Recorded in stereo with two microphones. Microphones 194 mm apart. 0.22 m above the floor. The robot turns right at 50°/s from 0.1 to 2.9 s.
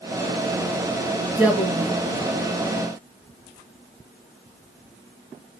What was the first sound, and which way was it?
A woman speaking, 175° right.